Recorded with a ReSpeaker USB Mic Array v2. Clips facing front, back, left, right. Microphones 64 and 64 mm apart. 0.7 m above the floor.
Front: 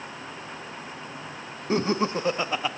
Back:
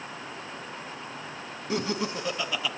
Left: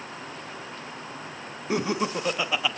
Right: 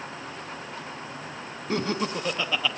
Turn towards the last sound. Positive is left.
turn(degrees=20)